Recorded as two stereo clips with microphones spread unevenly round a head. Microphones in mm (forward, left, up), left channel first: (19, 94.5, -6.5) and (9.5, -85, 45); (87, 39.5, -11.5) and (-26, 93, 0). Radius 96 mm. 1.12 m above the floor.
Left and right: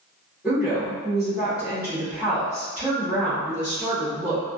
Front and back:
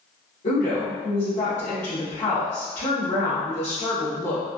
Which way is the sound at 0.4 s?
5° right.